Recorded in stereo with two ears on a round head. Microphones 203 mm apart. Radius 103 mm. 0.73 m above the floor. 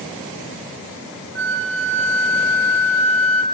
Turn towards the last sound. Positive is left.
turn(degrees=-60)  # may be behind; listen again after turning